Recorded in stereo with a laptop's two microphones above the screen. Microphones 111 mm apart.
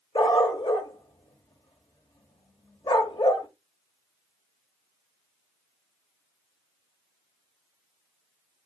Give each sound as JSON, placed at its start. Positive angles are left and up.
{"t": 0.1, "sound": "a dog barking", "side_deg": 55, "distance_m": 1.2}